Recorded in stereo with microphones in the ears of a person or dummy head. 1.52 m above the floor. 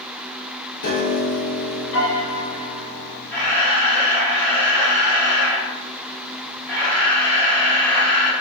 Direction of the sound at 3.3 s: 10° left (ahead or behind).